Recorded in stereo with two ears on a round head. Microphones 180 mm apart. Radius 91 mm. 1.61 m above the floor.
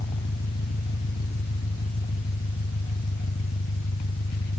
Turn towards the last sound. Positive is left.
turn(degrees=55)  # may be behind; listen again after turning